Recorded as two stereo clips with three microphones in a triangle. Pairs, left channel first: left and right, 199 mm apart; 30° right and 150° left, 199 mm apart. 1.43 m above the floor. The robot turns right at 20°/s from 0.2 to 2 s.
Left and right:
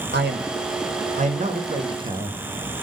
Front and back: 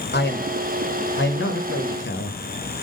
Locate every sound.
0.1 s a man speaking: 60° right, 1.2 m; by 2.4 s 25° right, 1.2 m